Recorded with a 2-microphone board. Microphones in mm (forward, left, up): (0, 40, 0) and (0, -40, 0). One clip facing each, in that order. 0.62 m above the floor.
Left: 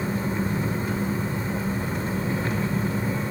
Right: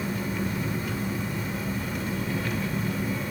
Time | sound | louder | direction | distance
0.0 | an engine running | left 3 dB | 35° left (ahead or behind) | 1.1 m